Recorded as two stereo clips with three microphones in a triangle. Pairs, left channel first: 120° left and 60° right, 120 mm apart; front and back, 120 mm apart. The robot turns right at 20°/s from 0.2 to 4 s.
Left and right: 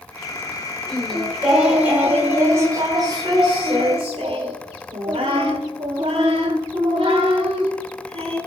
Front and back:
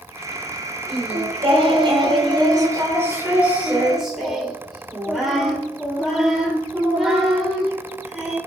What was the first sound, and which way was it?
Singing, 155° right.